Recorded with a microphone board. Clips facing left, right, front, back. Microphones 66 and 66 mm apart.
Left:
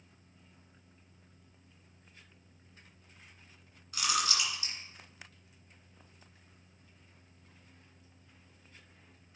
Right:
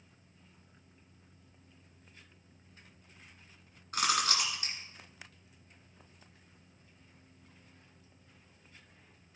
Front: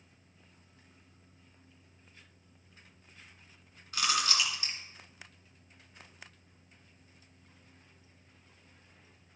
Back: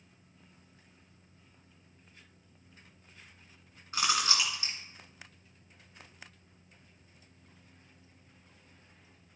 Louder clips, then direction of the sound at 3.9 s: Right 2 dB, back 1 dB; 120° right.